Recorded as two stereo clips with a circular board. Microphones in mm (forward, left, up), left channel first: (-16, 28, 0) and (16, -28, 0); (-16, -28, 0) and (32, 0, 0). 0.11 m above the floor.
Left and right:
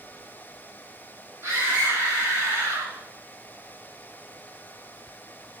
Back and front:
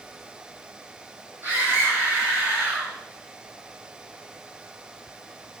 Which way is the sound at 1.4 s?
20° right.